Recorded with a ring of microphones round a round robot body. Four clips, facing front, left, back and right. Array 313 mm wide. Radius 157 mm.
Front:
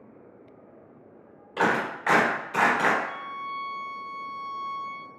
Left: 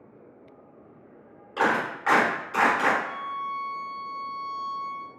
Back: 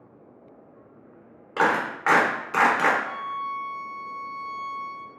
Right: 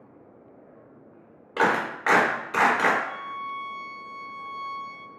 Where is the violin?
110° left, 2.0 m.